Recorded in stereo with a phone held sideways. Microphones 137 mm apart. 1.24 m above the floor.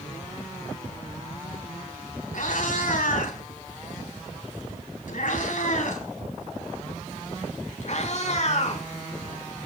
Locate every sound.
2.3 s a cat meowing: 80° left, 4 m; by 8.8 s 55° left (ahead or behind), 5 m